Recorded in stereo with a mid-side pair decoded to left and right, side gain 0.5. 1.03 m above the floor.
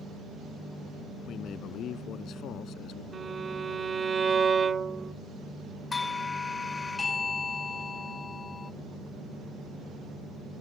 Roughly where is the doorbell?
Ahead left.